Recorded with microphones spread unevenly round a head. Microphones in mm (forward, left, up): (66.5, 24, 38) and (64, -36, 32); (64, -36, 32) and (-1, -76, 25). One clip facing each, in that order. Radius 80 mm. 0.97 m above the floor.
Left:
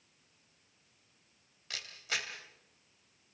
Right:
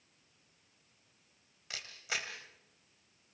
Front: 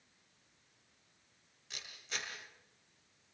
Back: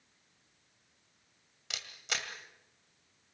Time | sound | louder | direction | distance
1.7 | a camera shutter | left 1 dB, back 5 dB | 175° right | 2.5 m